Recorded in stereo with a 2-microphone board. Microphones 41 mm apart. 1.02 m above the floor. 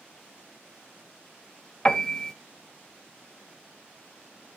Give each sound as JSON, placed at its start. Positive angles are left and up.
{"t": 1.9, "sound": "a piano", "side_deg": 15, "distance_m": 0.7}